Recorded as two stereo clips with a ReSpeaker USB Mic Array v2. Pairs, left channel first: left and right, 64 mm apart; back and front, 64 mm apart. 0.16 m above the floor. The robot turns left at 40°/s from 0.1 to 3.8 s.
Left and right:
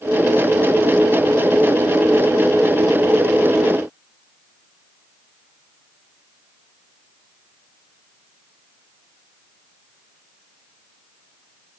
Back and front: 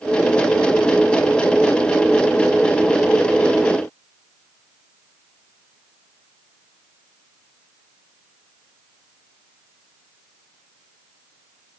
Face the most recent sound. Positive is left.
No sound to turn to.